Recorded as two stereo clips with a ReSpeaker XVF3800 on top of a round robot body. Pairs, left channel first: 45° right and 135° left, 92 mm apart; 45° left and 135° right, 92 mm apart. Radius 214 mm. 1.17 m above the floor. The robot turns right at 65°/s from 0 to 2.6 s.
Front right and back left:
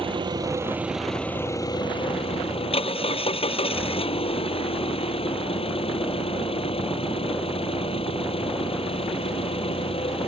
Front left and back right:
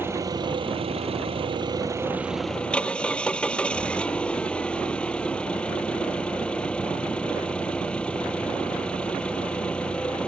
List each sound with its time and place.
0.0 s an engine running: 160° left; by 10.3 s 35° right